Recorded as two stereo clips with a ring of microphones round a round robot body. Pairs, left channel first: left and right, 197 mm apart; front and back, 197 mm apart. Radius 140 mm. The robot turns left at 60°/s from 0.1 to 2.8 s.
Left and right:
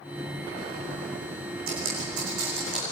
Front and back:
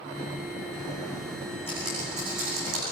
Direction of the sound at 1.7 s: 80° right.